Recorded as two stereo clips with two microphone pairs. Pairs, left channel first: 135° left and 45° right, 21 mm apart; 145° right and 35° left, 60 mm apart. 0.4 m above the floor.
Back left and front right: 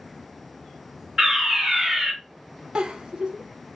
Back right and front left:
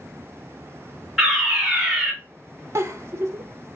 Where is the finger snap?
I don't hear a finger snap.